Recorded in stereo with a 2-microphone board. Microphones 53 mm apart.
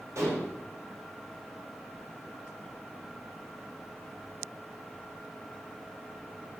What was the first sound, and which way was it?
Dishes clattering, 60° right (ahead or behind).